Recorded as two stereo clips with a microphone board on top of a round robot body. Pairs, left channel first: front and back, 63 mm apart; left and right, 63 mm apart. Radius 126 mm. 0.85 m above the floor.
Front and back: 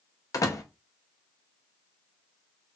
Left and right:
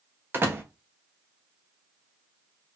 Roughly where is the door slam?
Ahead right.